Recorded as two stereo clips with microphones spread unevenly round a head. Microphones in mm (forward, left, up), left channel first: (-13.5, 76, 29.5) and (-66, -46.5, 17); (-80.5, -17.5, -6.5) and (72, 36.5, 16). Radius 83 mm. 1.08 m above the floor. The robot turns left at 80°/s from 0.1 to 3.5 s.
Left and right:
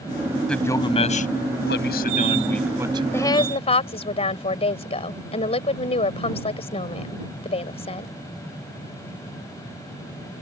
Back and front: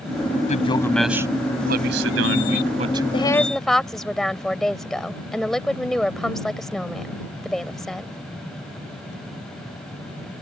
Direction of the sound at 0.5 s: 150° left.